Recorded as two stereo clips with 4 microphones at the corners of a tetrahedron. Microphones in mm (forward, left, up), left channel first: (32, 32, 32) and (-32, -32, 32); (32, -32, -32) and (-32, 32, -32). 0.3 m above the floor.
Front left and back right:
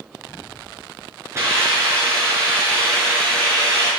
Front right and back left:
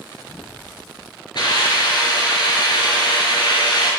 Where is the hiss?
80° right, 5 m.